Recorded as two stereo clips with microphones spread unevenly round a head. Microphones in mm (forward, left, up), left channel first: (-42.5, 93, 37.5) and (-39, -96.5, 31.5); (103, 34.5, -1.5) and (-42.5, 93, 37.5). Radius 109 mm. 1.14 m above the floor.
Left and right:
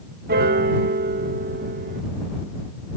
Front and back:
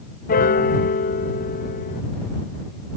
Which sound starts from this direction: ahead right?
A piano, at 0.3 s.